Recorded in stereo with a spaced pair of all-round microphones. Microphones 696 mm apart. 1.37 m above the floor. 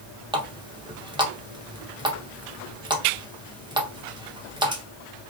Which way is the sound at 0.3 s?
10° right (ahead or behind).